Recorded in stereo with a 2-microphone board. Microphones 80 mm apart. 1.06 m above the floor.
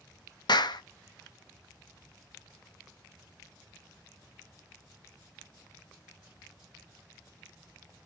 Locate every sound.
0.5 s a clap: 65° left (ahead or behind), 0.5 m